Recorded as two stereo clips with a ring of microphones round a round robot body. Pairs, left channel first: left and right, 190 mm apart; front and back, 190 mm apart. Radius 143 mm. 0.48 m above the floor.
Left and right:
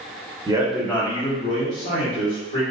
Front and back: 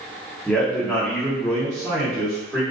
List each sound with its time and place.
0.5 s a man speaking: 75° right, 0.7 m; by 2.6 s 90° left, 1.5 m